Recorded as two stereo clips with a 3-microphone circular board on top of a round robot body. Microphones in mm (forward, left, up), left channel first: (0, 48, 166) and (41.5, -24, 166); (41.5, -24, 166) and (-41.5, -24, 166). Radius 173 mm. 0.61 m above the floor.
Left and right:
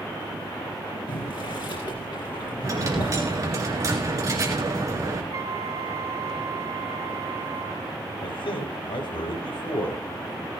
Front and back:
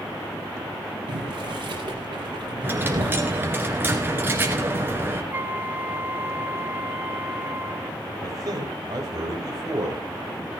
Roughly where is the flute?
Right.